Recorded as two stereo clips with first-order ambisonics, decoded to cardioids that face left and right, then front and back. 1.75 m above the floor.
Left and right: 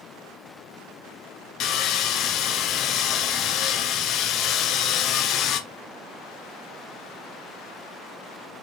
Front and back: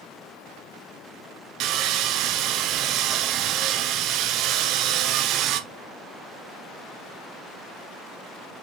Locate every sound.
1.6 s sawing: 140° left, 1.0 m